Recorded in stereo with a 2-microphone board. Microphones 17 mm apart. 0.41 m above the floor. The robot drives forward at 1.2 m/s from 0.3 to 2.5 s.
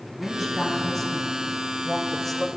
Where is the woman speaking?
5° left (ahead or behind), 4 m; by 2.5 s 10° left (ahead or behind), 1.9 m.